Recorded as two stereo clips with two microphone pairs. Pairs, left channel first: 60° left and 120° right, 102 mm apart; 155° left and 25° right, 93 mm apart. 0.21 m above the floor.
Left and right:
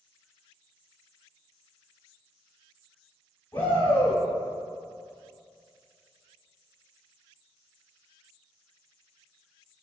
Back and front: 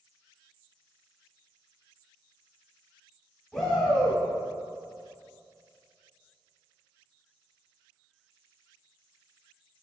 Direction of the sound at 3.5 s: 100° left.